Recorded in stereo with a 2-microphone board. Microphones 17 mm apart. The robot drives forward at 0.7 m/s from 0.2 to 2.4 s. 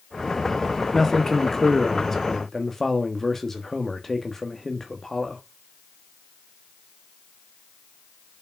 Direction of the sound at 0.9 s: 15° left (ahead or behind).